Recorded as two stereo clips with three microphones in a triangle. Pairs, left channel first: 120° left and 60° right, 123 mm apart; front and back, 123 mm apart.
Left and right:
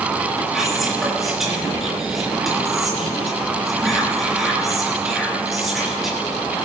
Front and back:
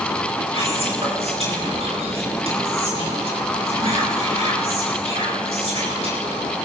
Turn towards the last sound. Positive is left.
turn(degrees=-150)